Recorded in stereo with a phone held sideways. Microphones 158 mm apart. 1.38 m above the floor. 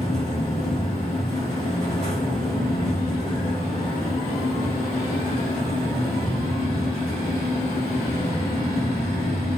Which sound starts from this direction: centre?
A fan, at 0.0 s.